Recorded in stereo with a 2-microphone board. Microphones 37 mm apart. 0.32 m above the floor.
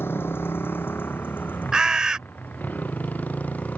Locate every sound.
0.0 s a motorcycle: 80° left; by 3.8 s 45° left (ahead or behind)
1.7 s a bird: 20° right (ahead or behind)